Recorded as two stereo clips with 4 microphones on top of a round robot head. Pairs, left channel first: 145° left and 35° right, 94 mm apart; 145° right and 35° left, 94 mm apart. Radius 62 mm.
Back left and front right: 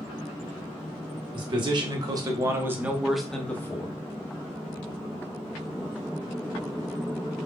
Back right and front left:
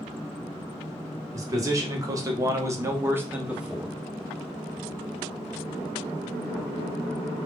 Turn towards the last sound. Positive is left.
turn(degrees=120)